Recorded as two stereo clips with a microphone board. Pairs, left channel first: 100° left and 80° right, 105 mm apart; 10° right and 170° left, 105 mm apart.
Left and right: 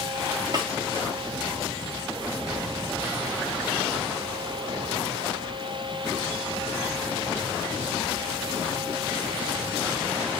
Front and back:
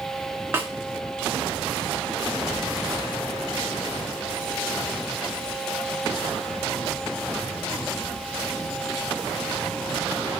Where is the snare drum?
120° right, 0.7 m.